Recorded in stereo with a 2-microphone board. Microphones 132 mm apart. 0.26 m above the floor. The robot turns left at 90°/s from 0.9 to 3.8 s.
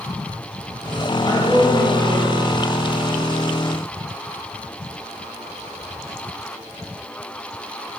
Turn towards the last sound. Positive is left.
turn(degrees=165)